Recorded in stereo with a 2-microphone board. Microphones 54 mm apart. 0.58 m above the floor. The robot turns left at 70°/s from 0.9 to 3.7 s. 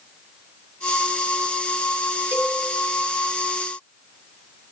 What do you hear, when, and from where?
2.3 s a cowbell: 40° right (ahead or behind), 2.5 m; by 2.6 s 25° right (ahead or behind), 2.5 m